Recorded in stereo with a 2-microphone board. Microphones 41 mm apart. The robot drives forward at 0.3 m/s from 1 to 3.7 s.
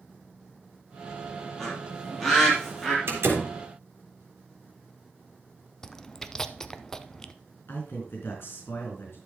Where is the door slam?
70° right (ahead or behind), 3 m.